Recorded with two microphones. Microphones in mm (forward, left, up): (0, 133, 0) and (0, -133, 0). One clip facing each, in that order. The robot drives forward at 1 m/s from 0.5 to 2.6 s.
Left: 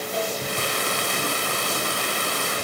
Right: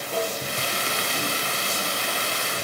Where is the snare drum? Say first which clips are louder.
Right 2 dB; 75° right (ahead or behind), 9.5 m.